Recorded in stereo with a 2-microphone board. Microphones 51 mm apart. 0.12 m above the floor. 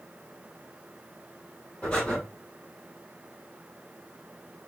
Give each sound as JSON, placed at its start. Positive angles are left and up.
{"t": 1.8, "sound": "breathing", "side_deg": 25, "distance_m": 2.0}